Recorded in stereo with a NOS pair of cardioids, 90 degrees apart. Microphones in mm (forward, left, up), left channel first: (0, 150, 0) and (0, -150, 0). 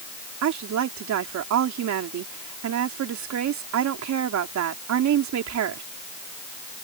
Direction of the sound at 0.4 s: 65° right.